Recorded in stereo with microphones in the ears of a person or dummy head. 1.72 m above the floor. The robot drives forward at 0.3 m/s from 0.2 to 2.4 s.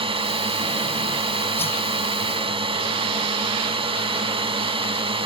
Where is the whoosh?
10° left (ahead or behind).